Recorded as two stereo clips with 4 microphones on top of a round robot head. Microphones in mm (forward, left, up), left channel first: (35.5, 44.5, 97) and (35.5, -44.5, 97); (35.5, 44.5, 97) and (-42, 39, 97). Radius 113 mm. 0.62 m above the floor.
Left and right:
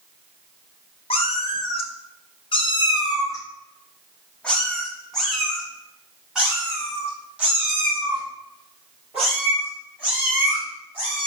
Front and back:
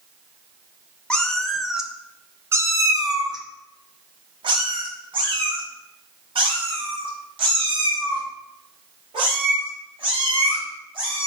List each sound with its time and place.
1.1 s a cat meowing: 80° left, 1.2 m; by 11.3 s 160° right, 5 m